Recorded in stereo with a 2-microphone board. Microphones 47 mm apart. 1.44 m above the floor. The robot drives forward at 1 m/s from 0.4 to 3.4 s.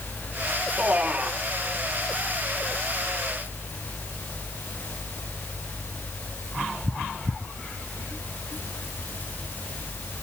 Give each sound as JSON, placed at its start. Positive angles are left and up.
{"t": 0.8, "sound": "a man speaking", "side_deg": -30, "distance_m": 4.0}